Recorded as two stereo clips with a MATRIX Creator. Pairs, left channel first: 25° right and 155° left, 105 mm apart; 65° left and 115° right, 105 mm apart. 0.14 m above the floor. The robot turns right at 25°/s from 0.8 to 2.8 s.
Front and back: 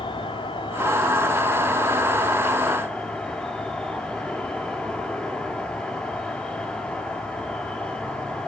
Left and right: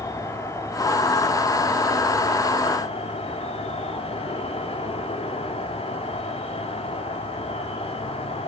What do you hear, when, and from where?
0.0 s an insect: 5° left, 1.0 m; by 8.5 s 55° left, 1.0 m